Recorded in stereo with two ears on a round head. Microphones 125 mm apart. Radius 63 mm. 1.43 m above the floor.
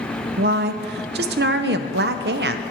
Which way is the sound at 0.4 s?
85° right.